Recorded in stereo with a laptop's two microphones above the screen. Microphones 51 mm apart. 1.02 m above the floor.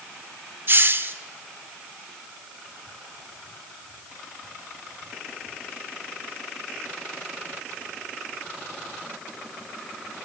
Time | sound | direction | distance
0.7 | a hiss | 45° right (ahead or behind) | 1.2 m